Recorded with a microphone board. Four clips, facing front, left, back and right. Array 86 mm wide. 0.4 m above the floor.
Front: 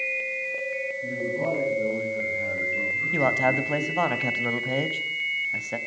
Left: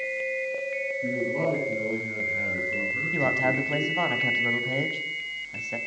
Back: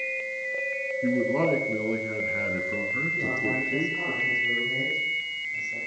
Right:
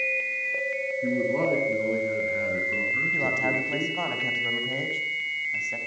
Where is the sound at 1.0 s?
160° right, 5.5 m.